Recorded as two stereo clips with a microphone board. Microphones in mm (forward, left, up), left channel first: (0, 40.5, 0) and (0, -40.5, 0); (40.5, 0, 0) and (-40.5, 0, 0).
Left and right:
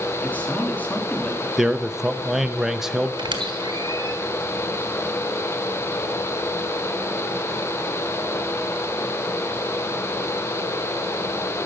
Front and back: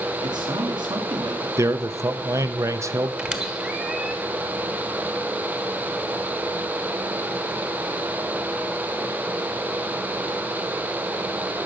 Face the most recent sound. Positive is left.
turn(degrees=-105)